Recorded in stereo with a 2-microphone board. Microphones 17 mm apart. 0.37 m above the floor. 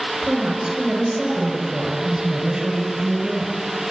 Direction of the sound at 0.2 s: 50° right (ahead or behind).